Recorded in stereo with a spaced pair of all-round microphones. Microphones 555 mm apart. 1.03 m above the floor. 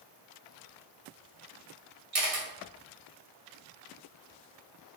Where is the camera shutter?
80° right, 1.0 m.